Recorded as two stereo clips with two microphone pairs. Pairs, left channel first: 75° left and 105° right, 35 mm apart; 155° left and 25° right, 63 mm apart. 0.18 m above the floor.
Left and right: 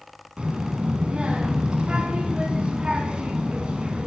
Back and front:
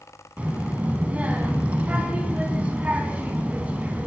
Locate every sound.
0.4 s a child speaking: 75° right, 0.8 m